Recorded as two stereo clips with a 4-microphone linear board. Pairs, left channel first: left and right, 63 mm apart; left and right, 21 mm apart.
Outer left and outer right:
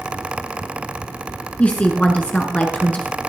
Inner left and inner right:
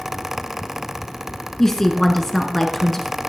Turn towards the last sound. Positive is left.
turn(degrees=25)  # may be behind; listen again after turning